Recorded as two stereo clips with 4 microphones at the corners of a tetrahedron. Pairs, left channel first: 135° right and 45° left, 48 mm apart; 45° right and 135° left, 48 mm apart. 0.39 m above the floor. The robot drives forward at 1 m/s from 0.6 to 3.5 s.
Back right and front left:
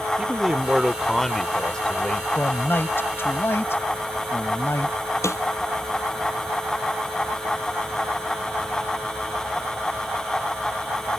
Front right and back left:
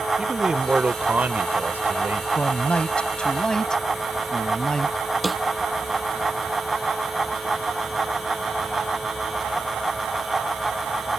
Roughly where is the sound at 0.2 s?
Left.